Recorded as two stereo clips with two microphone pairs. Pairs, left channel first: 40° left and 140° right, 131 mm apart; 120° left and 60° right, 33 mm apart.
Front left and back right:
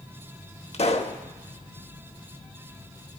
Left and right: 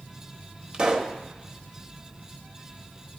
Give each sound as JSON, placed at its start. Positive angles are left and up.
{"t": 0.7, "sound": "a pop", "azimuth_deg": 0, "distance_m": 0.6}